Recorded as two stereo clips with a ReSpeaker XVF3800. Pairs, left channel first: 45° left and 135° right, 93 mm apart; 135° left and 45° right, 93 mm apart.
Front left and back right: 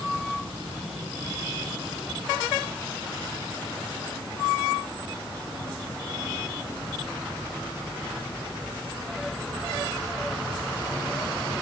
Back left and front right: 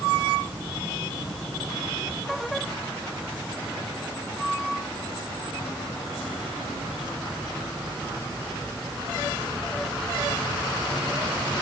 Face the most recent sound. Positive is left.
No sound to turn to.